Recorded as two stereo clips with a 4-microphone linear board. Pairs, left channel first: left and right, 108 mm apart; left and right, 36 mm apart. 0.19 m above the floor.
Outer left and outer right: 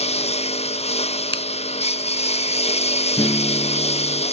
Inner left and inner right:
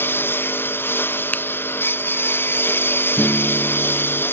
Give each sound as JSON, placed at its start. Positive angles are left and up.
{"t": 0.0, "sound": "a lawn mower", "side_deg": 80}
{"t": 1.3, "sound": "a finger snap", "side_deg": 50}
{"t": 3.2, "sound": "a guitar", "side_deg": 35}